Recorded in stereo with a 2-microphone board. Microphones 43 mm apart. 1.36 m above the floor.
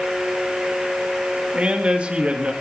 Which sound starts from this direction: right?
A man speaking, at 1.5 s.